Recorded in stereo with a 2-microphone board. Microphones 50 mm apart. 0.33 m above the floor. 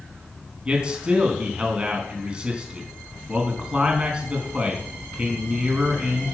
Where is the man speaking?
20° right (ahead or behind), 4 m.